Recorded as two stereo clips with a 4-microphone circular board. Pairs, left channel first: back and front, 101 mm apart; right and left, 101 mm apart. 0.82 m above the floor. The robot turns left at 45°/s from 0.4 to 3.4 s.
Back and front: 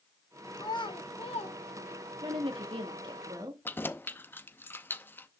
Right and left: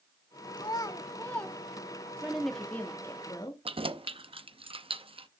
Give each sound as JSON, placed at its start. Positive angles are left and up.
{"t": 0.6, "sound": "a child speaking", "azimuth_deg": -130, "distance_m": 1.1}
{"t": 2.2, "sound": "a woman speaking", "azimuth_deg": 10, "distance_m": 1.7}
{"t": 3.6, "sound": "keys jangling", "azimuth_deg": 110, "distance_m": 0.5}